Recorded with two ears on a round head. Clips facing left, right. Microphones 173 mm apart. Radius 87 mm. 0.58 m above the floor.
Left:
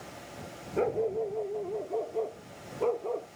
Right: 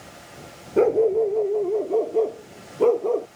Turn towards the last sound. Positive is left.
turn(degrees=-60)  # may be behind; listen again after turning